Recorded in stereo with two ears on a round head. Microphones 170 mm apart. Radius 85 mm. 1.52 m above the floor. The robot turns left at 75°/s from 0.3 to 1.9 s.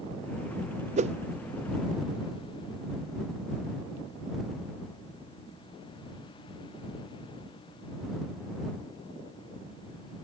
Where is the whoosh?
40° right (ahead or behind); by 1.1 s 30° right (ahead or behind).